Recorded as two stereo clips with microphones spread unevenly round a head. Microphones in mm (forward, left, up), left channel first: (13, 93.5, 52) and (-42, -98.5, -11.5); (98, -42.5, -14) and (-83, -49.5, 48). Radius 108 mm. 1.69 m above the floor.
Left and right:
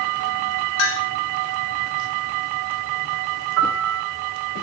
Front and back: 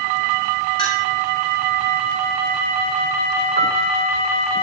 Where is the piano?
140° right, 6.5 m.